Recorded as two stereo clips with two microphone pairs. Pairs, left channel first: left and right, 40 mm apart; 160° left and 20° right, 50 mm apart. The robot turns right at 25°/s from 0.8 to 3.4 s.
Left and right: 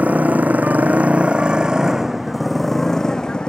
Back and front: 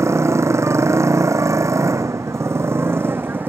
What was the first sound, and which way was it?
A motorcycle, 40° right.